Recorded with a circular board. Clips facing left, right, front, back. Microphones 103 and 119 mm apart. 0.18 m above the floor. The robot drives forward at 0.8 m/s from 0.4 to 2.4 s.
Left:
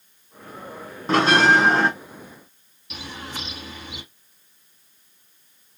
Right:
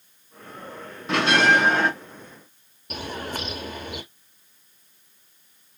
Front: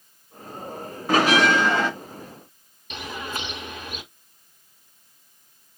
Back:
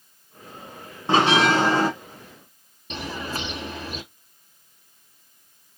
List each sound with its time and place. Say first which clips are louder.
1.1 s a bell: left 3 dB, even; 130° left, 1.9 m; by 1.9 s 145° left, 2 m
2.9 s a bird: right 4 dB, back 2 dB; 125° right, 1.1 m